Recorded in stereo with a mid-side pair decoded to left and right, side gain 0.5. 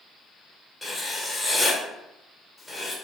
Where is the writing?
20° left, 1.2 m.